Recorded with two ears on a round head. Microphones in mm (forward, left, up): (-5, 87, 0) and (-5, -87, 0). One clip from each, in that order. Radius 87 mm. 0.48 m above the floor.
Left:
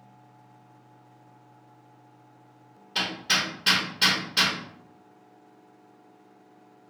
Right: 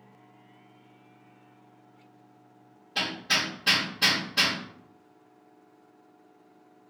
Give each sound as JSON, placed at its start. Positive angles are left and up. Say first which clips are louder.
{"t": 3.0, "sound": "hammering", "louder": "left 1 dB", "side_deg": 55, "distance_m": 1.6}